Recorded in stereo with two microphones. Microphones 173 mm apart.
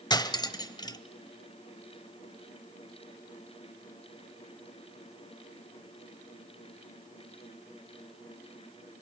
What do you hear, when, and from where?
0.1 s cutlery clinking: 25° left (ahead or behind), 0.8 m